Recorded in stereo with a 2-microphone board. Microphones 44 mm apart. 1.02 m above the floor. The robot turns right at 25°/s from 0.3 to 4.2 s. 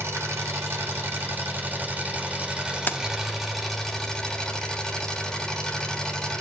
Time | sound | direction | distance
0.0 | an engine running | 80° right | 2.5 m
2.9 | keys jangling | 45° left (ahead or behind) | 0.7 m